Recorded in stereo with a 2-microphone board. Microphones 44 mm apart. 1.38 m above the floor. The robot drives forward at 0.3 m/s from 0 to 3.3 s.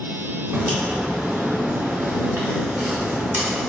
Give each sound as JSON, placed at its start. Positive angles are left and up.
{"t": 0.5, "sound": "a crack", "side_deg": -60, "distance_m": 2.5}